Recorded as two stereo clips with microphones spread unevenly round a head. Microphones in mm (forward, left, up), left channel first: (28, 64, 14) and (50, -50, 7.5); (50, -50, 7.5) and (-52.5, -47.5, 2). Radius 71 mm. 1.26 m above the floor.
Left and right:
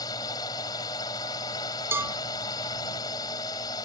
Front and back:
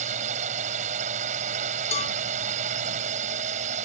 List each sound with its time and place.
0.0 s a drone: 165° left
1.9 s a cowbell: 5° right